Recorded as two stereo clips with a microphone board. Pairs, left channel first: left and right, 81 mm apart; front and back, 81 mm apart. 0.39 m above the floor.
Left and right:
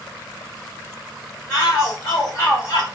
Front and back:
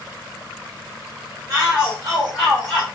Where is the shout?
140° left, 1.9 m; by 2.9 s 75° left, 2.0 m.